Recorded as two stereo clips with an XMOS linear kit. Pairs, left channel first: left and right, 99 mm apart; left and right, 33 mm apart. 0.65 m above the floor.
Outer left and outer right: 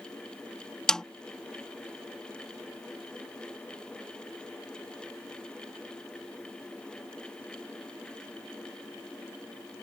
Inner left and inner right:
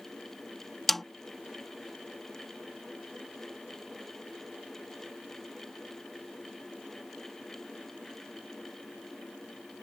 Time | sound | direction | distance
0.9 | a snare drum | 5° left (ahead or behind) | ?